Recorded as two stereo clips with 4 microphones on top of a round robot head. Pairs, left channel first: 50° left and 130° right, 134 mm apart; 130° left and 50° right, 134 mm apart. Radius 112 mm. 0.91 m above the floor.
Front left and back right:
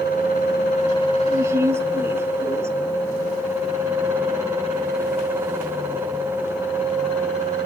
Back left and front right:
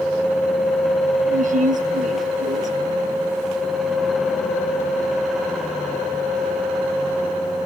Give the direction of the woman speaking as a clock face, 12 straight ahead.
2 o'clock.